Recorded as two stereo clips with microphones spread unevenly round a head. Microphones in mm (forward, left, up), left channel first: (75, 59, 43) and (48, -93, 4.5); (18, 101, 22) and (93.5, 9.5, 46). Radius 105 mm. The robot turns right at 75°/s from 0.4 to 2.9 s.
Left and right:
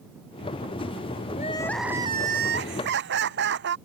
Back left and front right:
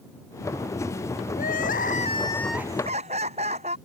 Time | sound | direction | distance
1.4 | crying | 135° left | ?